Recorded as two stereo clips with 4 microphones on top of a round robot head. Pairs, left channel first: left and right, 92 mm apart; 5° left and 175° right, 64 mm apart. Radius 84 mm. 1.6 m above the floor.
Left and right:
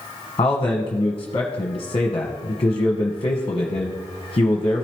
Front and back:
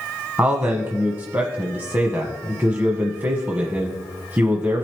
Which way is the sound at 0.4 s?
135° left.